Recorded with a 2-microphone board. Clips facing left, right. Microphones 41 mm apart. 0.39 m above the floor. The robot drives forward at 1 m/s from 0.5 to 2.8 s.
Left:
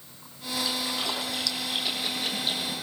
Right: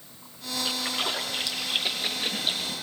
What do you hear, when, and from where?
0.7 s a splash: 35° right (ahead or behind), 5.5 m; by 2.7 s 25° right (ahead or behind), 7.5 m